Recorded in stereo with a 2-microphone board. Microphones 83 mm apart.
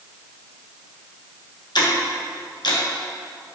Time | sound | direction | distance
1.8 | ticking | 60° left (ahead or behind) | 1.0 m